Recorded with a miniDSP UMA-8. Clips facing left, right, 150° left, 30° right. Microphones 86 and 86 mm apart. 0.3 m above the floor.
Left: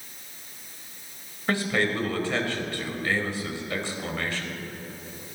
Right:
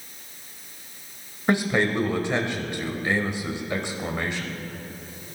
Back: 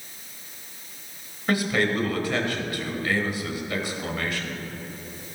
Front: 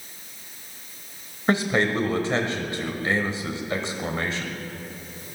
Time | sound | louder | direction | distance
1.5 | a man speaking | right 3 dB, front 2 dB | 40° right | 1.2 m